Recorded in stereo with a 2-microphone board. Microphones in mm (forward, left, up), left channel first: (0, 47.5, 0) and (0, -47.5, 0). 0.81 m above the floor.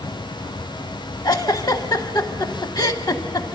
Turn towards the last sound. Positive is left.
turn(degrees=45)  # may be behind; listen again after turning